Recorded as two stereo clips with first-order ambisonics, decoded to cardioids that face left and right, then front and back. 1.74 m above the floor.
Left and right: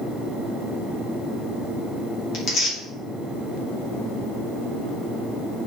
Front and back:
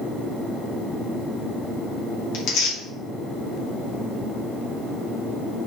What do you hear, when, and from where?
2.3 s tearing paper: 40° left, 2 m